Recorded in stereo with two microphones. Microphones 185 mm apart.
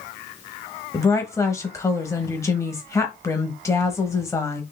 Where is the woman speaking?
15° left (ahead or behind), 1.1 m.